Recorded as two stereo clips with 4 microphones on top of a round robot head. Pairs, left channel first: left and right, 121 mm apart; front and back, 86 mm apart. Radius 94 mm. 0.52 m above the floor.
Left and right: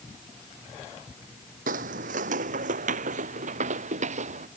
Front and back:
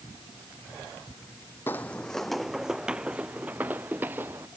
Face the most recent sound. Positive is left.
turn(degrees=-105)